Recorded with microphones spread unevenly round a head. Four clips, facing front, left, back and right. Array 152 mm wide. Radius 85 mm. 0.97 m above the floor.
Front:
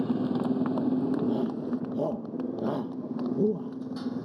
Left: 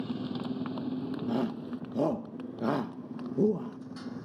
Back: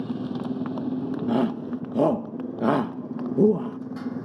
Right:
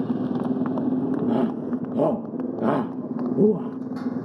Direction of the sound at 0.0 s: 65° right.